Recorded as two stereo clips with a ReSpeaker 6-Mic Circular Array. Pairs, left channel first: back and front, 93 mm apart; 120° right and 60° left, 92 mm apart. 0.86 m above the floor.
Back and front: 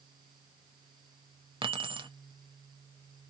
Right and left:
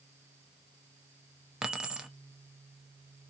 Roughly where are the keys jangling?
Ahead.